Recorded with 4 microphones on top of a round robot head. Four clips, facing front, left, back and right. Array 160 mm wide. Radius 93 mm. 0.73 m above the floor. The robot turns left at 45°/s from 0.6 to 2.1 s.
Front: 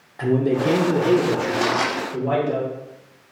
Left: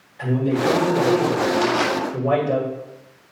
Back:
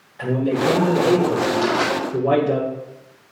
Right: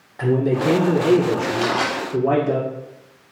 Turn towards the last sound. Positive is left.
turn(degrees=-50)